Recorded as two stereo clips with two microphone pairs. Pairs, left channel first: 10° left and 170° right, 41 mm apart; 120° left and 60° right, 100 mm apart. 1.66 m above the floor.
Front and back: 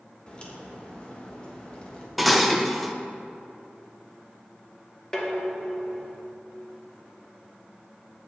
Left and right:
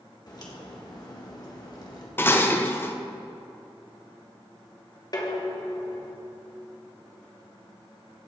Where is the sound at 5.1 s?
80° left, 1.2 m.